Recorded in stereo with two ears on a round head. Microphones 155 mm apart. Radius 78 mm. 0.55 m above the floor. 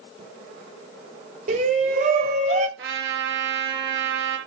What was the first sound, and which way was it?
A shout, 40° right (ahead or behind).